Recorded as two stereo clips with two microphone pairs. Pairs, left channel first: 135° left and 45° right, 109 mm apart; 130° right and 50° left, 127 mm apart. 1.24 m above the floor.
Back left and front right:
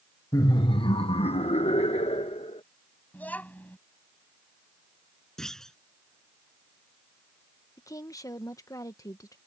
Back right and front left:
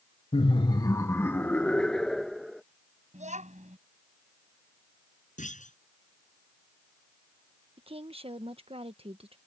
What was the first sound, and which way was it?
Laughter, 165° right.